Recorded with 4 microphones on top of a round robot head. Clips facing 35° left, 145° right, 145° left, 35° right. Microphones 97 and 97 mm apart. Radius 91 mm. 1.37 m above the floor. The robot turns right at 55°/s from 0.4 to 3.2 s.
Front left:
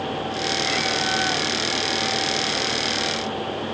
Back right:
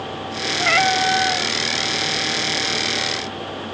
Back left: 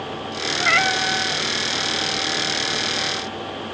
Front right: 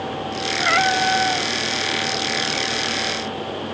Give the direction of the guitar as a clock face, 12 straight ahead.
I don't hear a guitar.